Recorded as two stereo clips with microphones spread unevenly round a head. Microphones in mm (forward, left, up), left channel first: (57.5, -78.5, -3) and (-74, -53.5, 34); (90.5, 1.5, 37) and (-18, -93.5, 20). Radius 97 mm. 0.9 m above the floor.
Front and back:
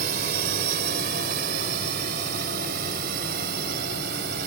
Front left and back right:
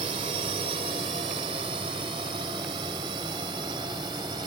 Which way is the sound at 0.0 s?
160° left.